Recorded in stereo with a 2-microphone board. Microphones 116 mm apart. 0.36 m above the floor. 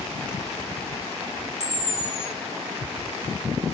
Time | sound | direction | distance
1.6 | a camera shutter | 70° right (ahead or behind) | 1.8 m